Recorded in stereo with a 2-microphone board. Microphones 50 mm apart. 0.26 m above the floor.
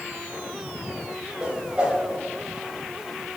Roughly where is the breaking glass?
I don't hear breaking glass.